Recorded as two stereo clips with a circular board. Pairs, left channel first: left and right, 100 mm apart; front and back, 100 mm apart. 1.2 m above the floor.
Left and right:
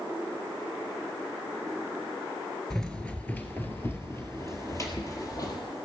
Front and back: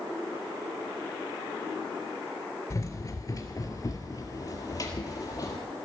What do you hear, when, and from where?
2.7 s running footsteps: 10° left, 1.4 m; by 5.6 s 45° left, 2.5 m